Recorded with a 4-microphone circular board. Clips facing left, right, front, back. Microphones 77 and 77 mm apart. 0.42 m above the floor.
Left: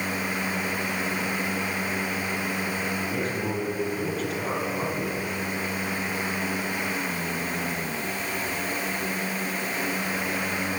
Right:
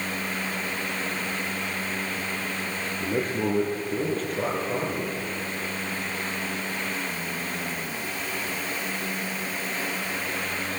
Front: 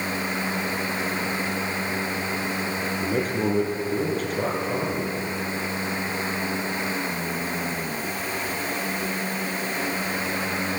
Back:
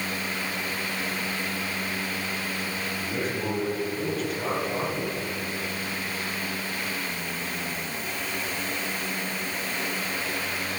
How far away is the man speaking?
About 6.5 m.